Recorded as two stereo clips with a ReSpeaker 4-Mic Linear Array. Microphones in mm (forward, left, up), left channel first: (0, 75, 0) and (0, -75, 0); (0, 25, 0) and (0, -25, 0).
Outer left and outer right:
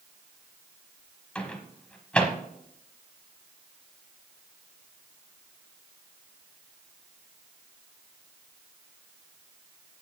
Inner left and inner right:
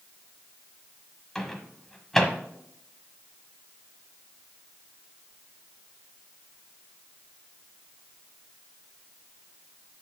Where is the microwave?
10° left (ahead or behind), 1.1 m.